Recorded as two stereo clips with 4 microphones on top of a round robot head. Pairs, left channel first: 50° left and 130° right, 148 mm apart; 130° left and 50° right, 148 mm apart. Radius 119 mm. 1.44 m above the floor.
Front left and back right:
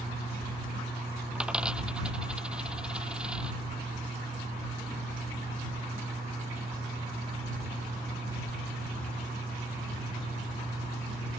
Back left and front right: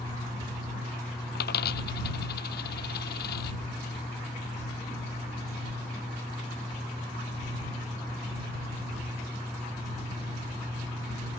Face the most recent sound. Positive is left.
turn(degrees=145)